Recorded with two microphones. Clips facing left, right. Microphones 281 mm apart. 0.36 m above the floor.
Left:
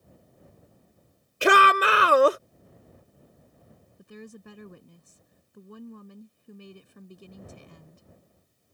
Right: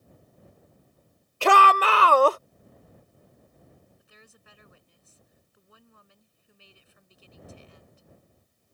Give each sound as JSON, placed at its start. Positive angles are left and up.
{"t": 1.4, "sound": "a shout", "side_deg": 20}
{"t": 4.0, "sound": "a woman speaking", "side_deg": 60}